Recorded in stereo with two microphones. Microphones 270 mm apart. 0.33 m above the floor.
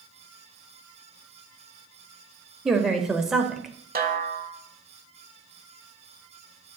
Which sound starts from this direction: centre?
A woman speaking, at 2.6 s.